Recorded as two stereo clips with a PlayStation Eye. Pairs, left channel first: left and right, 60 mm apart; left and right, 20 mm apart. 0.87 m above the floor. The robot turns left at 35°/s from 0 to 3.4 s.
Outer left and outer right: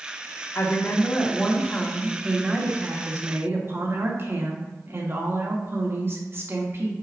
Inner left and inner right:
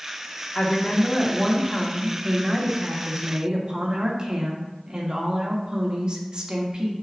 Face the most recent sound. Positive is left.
turn(degrees=-50)